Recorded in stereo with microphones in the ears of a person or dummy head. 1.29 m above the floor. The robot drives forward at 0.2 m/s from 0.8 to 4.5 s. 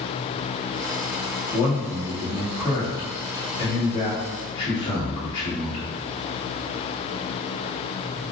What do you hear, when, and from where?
1.5 s a man speaking: 40° left (ahead or behind), 1.4 m; by 5.9 s 30° left (ahead or behind), 1.9 m